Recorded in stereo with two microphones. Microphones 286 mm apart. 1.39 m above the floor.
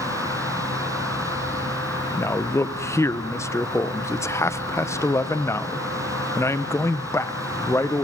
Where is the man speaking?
10° left (ahead or behind), 0.7 m.